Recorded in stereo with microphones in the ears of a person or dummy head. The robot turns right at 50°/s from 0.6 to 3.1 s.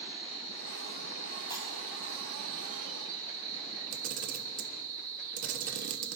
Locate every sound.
0.0 s an insect: 150° right, 6 m; by 6.2 s 25° right, 6 m
1.5 s breaking glass: 20° right (ahead or behind), 4.5 m; by 1.7 s 10° right (ahead or behind), 4.5 m
3.9 s a camera shutter: 50° right (ahead or behind), 1.0 m